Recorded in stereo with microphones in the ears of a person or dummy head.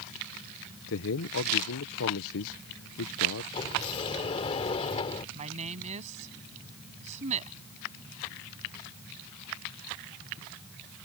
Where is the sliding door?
30° left (ahead or behind).